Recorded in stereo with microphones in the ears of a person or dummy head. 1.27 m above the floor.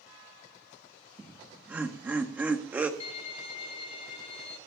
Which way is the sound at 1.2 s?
10° right (ahead or behind).